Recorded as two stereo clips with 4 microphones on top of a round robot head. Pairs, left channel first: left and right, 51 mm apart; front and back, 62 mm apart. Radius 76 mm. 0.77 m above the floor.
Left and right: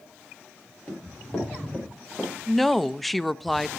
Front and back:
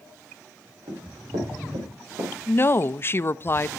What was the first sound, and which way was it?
Running footsteps, 165° left.